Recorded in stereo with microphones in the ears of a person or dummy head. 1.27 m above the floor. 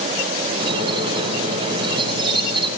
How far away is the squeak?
About 5 m.